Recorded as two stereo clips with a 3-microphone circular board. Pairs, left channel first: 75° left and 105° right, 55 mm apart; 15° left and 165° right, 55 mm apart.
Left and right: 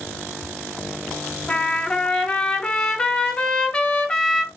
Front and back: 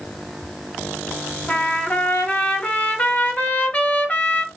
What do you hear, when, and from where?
1.5 s a trumpet: 25° left, 1.0 m